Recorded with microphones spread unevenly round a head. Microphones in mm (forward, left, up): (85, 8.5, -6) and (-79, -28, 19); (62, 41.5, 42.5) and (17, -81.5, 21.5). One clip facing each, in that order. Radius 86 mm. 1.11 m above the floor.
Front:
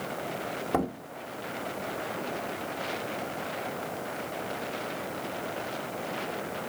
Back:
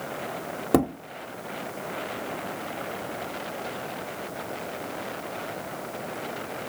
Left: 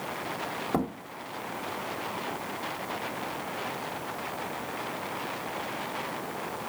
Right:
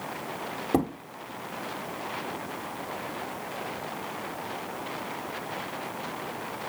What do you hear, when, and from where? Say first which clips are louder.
0.7 s a thud: back 7 dB, right 4 dB; 175° left, 1.2 m